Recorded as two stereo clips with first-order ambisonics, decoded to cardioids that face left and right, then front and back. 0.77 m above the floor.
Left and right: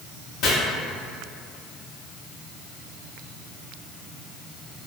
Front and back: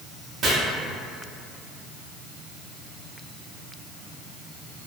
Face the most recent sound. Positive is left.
turn(degrees=125)